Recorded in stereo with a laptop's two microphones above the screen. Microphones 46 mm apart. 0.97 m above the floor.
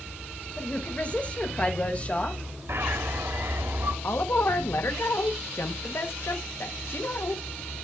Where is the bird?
60° right (ahead or behind), 0.9 m.